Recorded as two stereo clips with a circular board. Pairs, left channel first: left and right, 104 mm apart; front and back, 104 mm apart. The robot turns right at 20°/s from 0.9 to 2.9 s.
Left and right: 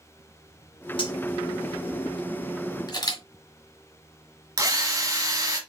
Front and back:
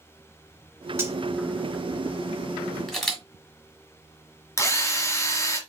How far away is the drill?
About 1.5 m.